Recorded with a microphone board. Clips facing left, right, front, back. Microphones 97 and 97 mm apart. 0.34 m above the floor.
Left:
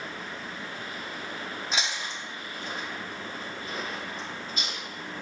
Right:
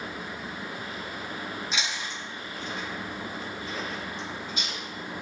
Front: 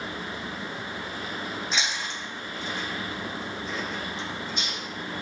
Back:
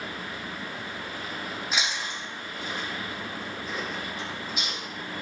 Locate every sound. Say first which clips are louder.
1.7 s chewing: left 1 dB, even; 100° left, 1.5 m